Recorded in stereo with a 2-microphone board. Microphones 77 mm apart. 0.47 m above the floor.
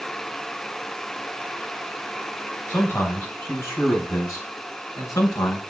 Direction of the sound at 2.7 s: 25° left (ahead or behind).